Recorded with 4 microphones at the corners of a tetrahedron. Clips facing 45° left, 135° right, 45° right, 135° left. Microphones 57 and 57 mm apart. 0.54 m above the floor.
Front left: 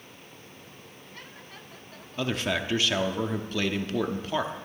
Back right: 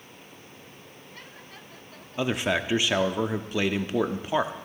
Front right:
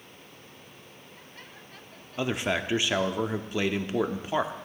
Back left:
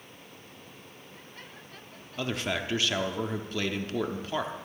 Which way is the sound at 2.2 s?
80° right.